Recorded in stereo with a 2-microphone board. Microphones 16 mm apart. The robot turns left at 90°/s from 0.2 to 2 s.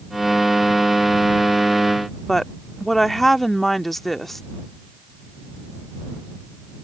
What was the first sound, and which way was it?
A woman speaking, 15° left (ahead or behind).